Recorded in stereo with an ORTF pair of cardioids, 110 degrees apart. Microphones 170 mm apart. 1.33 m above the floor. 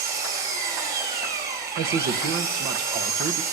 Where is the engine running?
65° right, 5.5 m.